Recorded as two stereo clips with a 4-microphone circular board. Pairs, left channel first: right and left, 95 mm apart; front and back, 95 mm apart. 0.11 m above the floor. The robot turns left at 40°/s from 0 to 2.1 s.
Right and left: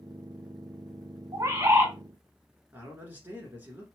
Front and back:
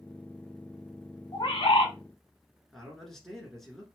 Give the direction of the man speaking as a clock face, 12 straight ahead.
9 o'clock.